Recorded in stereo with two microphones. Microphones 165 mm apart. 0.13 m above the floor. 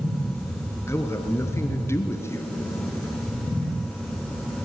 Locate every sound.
0.9 s a man speaking: 15° left (ahead or behind), 2 m